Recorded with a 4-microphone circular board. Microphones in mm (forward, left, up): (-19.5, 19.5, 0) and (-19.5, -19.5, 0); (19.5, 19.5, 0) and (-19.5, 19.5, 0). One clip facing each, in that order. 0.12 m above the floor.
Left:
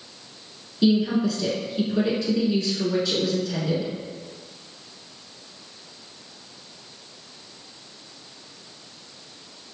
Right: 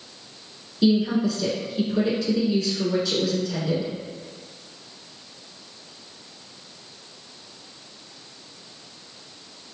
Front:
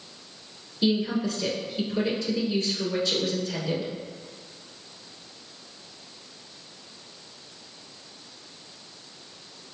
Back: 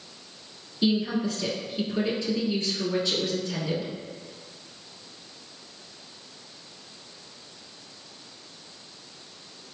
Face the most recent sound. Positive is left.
turn(degrees=160)